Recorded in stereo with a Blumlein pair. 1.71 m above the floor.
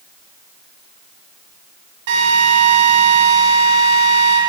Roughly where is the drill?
Ahead right.